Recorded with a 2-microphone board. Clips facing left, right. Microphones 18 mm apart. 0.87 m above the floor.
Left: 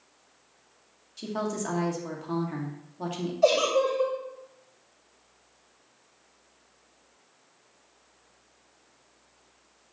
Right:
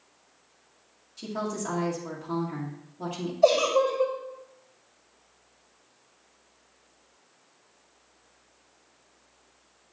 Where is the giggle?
40° left (ahead or behind), 3 m.